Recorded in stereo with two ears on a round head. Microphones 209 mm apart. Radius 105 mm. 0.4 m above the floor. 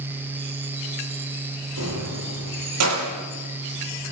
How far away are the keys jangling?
About 9 m.